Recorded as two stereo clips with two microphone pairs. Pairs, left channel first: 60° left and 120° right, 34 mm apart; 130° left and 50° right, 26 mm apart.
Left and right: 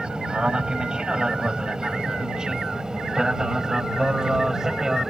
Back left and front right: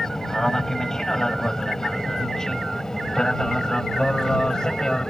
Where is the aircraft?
165° right; by 5.1 s straight behind.